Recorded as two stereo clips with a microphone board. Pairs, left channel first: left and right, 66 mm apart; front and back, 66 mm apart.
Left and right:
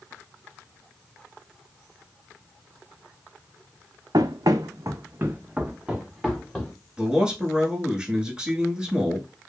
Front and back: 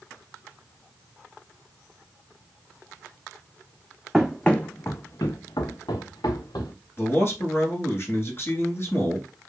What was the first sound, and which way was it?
Running footsteps, 90° right.